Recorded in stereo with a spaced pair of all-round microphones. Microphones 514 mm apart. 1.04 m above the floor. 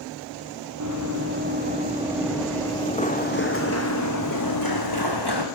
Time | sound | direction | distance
0.8 | running footsteps | 35° right (ahead or behind) | 2.5 m